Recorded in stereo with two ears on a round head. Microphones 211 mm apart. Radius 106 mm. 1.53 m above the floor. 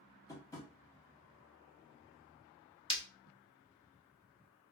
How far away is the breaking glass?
About 0.7 m.